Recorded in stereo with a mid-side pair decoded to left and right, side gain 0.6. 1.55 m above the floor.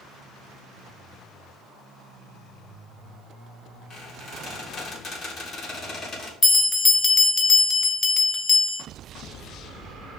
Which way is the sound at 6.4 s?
35° left.